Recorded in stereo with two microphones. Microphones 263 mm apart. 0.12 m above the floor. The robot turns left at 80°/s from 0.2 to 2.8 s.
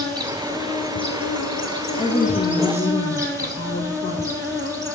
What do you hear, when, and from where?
0.0 s an insect: 165° right, 1.4 m; by 5.0 s 15° right, 1.4 m
2.0 s a woman speaking: 135° left, 1.3 m; by 5.0 s 70° left, 1.3 m